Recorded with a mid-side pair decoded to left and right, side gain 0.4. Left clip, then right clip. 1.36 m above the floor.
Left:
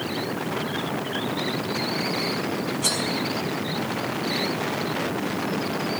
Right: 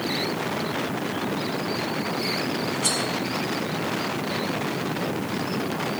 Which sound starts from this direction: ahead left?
Cutlery clinking, at 2.8 s.